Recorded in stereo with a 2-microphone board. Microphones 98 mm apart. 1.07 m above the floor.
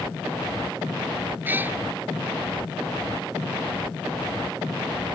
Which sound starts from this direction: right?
A cat meowing, at 1.4 s.